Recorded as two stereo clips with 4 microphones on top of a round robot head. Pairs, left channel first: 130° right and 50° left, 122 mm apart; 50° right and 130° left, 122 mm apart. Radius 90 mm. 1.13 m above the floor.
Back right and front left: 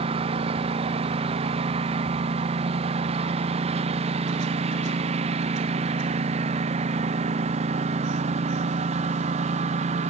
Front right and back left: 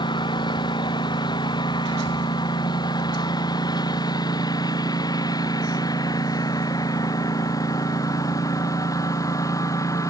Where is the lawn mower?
5° left; by 10.1 s 15° left.